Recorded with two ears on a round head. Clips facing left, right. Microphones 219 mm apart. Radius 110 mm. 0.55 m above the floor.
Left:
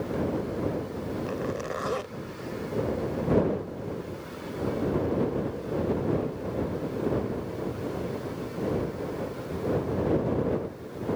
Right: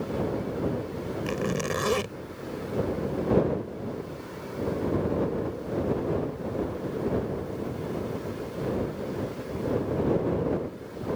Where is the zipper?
50° right (ahead or behind).